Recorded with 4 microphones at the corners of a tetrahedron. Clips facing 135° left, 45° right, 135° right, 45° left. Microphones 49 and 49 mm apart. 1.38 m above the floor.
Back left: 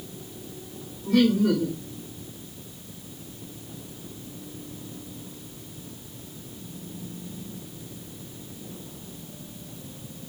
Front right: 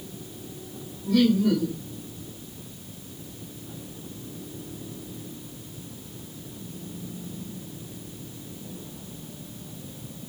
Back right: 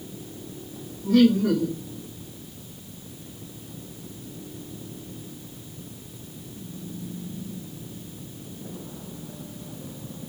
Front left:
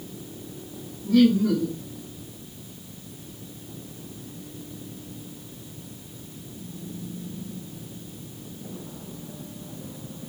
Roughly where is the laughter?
Behind.